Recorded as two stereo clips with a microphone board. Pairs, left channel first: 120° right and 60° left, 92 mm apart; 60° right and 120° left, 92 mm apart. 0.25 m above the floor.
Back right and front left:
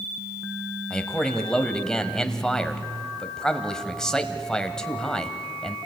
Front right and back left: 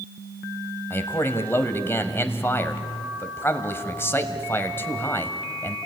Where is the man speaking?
45° right, 1.4 m.